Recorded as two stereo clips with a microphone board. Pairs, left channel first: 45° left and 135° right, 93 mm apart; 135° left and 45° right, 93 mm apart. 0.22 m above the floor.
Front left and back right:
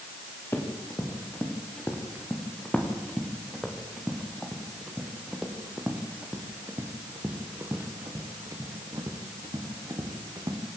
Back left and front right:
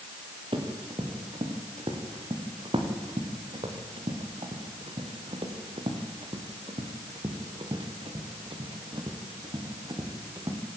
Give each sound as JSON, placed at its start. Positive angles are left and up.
{"t": 0.5, "sound": "running footsteps", "azimuth_deg": -20, "distance_m": 5.0}